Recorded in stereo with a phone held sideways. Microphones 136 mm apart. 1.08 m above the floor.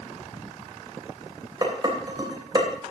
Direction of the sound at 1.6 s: 30° right (ahead or behind).